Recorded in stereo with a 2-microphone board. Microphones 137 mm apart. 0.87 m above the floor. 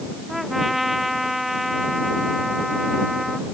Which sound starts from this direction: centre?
A trumpet, at 0.3 s.